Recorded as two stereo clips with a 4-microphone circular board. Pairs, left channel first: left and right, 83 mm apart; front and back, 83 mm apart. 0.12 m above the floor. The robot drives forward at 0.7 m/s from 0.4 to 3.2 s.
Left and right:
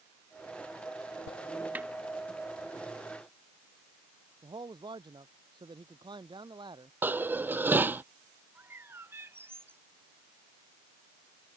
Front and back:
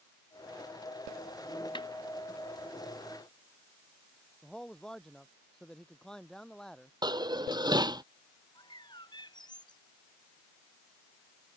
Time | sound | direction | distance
1.8 | a snare drum | 20° right | ?
4.4 | a man speaking | 80° right | ?
7.0 | dishes clattering | 155° right | ?
8.6 | a bird | 30° right | ?